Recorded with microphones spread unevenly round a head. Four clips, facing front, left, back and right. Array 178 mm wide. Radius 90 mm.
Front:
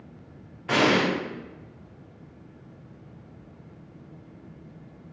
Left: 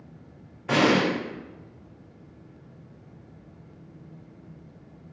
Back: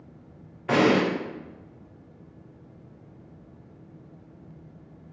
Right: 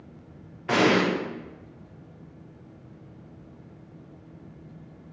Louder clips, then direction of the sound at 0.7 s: Even, back 2 dB; straight behind.